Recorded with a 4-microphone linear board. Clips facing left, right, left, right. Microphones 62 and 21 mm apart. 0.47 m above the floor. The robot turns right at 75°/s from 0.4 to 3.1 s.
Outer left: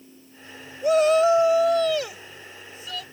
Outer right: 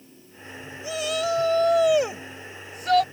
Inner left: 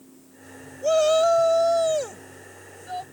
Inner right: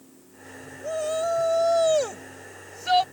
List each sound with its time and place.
0.8 s a shout: 115° left; by 3.0 s 80° right